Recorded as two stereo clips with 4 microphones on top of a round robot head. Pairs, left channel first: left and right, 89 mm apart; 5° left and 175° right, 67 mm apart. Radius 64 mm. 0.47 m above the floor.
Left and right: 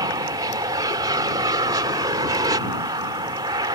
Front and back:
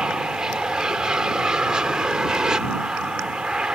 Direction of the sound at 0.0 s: 100° right.